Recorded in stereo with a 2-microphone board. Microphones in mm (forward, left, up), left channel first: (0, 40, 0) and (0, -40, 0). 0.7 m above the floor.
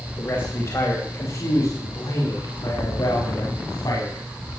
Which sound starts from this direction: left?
A man speaking, at 0.2 s.